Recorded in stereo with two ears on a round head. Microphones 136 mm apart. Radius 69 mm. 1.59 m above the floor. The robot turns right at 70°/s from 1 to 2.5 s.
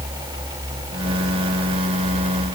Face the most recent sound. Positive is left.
No sound to turn to.